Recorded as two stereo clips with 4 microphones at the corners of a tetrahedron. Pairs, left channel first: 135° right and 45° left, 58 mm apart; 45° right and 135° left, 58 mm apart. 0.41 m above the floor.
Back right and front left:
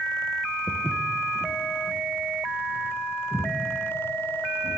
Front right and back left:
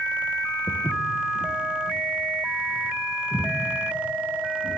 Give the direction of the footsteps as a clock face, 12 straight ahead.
3 o'clock.